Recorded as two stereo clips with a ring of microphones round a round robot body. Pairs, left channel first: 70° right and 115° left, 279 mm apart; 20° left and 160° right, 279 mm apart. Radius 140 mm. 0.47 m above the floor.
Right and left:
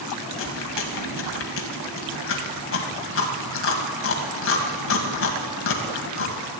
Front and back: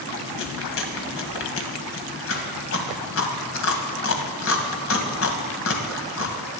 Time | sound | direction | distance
0.4 | chewing | 20° right | 1.8 m